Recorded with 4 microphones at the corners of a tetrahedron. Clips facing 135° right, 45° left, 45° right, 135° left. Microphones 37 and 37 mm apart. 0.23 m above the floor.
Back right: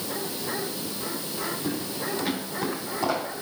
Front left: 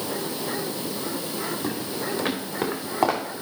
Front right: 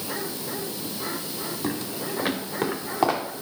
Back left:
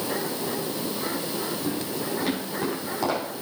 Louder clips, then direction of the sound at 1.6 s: Front left 2 dB, back left 1 dB; 5° right.